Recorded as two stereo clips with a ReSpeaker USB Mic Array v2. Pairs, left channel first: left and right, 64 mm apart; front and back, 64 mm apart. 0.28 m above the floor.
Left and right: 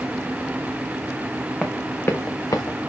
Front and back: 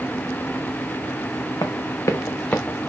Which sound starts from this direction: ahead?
Running footsteps, at 1.6 s.